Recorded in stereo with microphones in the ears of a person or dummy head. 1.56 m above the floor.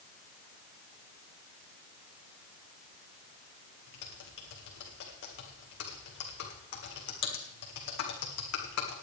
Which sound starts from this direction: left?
Typing on a keyboard, at 3.9 s.